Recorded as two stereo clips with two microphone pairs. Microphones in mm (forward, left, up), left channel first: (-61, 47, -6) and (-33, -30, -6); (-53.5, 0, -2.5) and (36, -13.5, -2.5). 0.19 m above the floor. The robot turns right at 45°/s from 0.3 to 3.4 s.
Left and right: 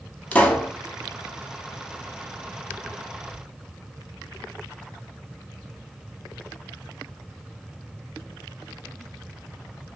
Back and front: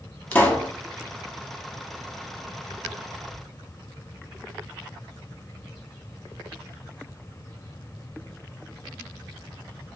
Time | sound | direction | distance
0.3 | a pop | 140° left | 0.5 m